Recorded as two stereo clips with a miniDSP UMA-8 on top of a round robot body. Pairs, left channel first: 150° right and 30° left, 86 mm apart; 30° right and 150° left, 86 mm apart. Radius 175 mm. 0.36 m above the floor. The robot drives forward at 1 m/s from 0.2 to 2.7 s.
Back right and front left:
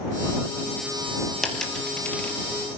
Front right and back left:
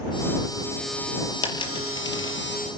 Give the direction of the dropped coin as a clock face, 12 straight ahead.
2 o'clock.